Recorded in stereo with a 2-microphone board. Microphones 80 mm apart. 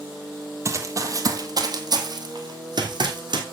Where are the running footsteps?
35° right (ahead or behind), 1.3 m; by 3.4 s 65° right (ahead or behind), 2.5 m.